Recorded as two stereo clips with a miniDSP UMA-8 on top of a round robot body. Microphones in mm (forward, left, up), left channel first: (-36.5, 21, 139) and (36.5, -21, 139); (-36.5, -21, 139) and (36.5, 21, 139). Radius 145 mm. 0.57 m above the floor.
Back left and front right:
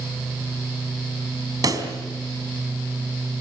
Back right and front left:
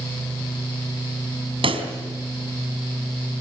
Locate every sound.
1.6 s a pop: 20° left, 3.5 m